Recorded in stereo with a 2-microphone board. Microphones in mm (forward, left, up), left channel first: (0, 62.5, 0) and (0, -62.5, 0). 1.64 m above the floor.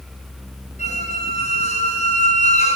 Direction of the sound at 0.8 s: 65° left (ahead or behind).